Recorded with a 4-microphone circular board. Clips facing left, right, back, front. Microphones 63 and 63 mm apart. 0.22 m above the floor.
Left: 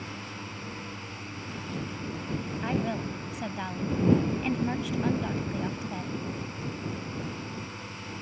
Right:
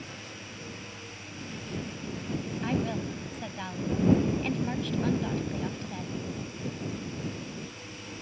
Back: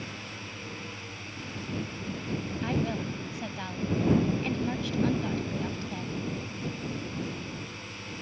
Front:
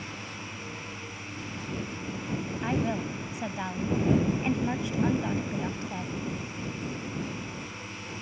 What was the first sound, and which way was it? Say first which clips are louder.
A drone: left 4 dB, front 1 dB; 70° left.